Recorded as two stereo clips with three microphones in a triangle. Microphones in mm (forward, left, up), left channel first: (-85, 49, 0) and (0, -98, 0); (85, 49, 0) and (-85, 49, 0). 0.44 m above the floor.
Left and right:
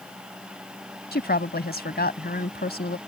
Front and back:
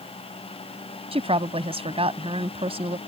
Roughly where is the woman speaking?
Behind left.